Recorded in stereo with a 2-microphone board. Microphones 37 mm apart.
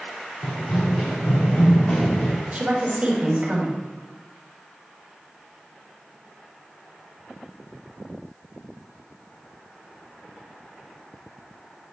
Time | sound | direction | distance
0.4 | running footsteps | 60° left (ahead or behind) | 2.5 m
2.5 | a woman speaking | 40° right (ahead or behind) | 2 m